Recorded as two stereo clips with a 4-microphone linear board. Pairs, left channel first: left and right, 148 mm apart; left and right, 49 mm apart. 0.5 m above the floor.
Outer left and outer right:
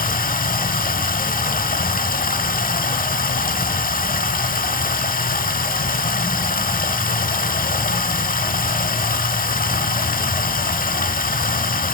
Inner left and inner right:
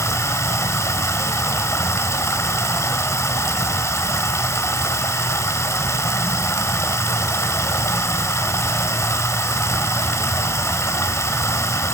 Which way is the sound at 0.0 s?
75° left (ahead or behind).